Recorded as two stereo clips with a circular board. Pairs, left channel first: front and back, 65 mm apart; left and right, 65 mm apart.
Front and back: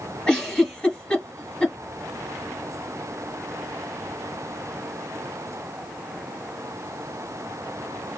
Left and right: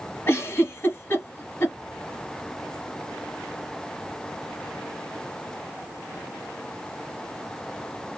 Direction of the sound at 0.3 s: 70° left.